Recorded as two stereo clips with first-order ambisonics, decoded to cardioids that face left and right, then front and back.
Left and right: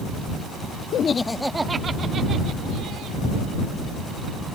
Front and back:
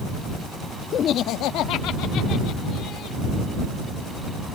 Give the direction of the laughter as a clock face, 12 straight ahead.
10 o'clock.